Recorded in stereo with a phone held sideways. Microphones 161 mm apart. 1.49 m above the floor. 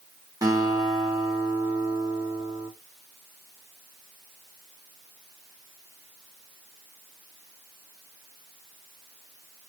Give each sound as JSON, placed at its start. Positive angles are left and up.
{"t": 0.4, "sound": "a guitar", "side_deg": -20, "distance_m": 1.3}